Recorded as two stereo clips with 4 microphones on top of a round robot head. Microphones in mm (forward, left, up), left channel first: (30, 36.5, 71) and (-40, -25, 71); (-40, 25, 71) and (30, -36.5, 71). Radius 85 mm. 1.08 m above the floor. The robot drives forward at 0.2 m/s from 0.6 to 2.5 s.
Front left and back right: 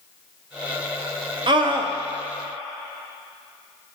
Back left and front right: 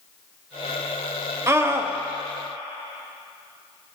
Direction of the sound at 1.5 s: 100° right.